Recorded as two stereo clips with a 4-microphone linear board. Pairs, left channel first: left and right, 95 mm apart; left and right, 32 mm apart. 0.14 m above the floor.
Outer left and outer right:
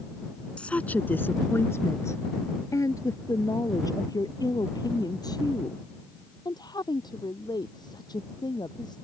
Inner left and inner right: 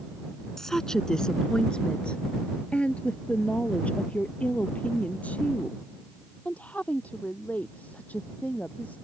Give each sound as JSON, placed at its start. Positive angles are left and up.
{"t": 0.6, "sound": "a woman speaking", "side_deg": 10}